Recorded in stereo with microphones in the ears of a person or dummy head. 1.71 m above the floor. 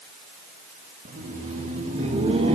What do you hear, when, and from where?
1.1 s laughter: 40° right (ahead or behind), 3.5 m; by 2.6 s 30° right (ahead or behind), 2.5 m